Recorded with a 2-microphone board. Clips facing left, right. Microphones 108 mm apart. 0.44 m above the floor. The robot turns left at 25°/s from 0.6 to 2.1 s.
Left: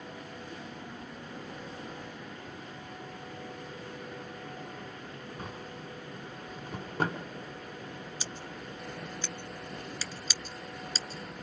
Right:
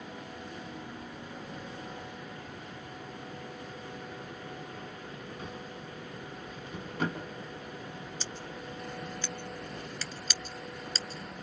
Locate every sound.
5.4 s a drawer: 40° left (ahead or behind), 2.5 m
8.2 s scissors: 10° left (ahead or behind), 1.4 m